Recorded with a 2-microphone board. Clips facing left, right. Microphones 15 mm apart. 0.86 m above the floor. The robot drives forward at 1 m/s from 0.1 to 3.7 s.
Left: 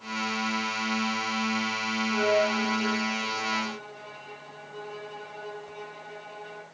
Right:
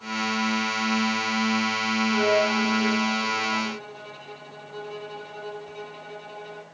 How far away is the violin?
About 3.5 m.